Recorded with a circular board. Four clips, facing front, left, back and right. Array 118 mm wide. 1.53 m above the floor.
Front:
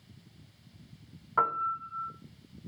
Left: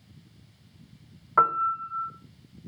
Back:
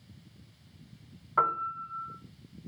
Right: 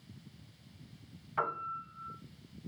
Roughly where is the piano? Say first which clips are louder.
Left 13 dB, even; left.